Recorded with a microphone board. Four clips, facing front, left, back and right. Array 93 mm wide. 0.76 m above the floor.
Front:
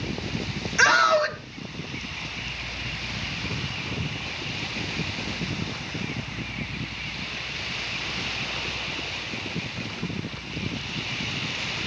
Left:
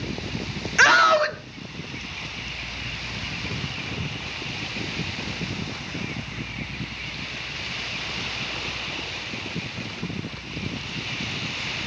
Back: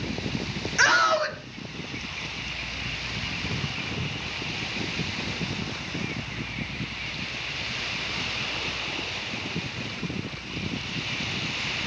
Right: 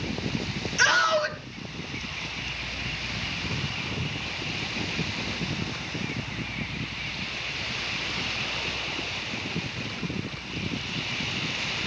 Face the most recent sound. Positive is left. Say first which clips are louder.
# left 6 dB, front 2 dB
turn(degrees=90)